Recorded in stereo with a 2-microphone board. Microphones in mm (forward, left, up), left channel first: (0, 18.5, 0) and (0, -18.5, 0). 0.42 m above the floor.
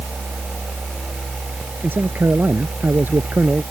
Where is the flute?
I don't hear a flute.